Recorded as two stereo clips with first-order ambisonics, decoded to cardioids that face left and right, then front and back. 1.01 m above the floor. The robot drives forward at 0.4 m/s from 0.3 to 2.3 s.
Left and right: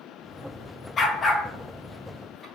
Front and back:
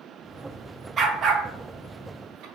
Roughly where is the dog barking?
Behind left.